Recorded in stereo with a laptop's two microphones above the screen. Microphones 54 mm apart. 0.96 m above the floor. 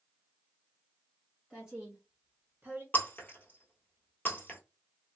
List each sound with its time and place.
1.5 s a woman speaking: centre (ahead or behind), 1.4 m; by 2.8 s 40° right (ahead or behind), 1.0 m
2.9 s breaking glass: 35° left (ahead or behind), 1.2 m